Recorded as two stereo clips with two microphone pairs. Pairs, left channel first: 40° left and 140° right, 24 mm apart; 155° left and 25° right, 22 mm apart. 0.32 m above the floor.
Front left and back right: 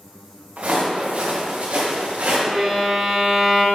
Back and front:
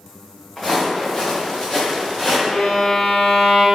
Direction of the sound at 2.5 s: Straight behind.